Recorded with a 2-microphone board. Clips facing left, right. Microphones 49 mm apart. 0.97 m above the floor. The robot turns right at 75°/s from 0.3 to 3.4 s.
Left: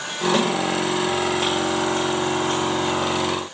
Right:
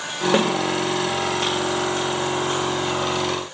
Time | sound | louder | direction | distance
0.3 | a snare drum | right 2 dB | 35° right (ahead or behind) | 1.8 m